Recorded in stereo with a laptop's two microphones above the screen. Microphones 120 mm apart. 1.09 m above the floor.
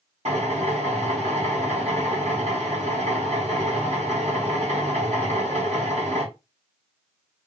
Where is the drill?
65° right (ahead or behind), 2 m.